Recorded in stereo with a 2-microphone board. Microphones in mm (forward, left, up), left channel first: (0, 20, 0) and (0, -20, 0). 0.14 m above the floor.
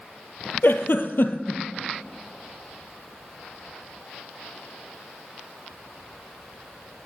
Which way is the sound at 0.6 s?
65° left (ahead or behind).